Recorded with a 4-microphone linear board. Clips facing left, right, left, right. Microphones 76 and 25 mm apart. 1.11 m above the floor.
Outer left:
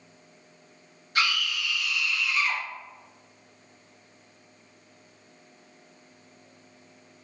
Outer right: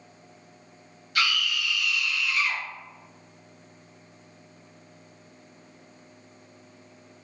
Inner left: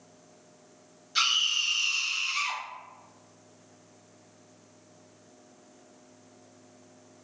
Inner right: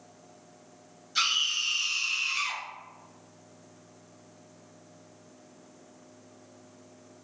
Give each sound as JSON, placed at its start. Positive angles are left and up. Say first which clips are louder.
{"t": 1.1, "sound": "a scream", "louder": "even, inner left 1 dB", "side_deg": 30, "distance_m": 1.6}